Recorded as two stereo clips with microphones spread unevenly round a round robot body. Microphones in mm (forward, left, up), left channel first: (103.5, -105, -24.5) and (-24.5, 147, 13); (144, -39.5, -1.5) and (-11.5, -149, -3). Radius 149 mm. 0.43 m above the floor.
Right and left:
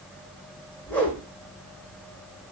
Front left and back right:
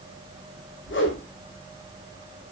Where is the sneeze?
No sneeze in this recording.